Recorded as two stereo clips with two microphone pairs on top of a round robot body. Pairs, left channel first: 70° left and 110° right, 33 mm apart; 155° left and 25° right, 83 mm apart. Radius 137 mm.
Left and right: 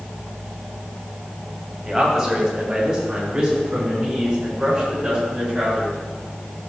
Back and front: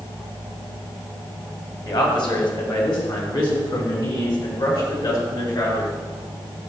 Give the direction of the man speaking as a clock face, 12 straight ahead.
6 o'clock.